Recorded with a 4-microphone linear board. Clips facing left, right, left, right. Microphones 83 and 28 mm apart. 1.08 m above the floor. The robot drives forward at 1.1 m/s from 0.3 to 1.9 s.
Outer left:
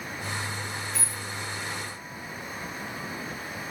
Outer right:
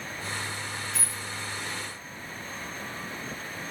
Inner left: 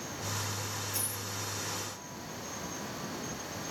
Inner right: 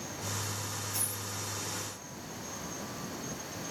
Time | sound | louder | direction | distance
0.9 | a dropped coin | outer left 1 dB, inner left 1 dB | 5° left (ahead or behind) | 4 m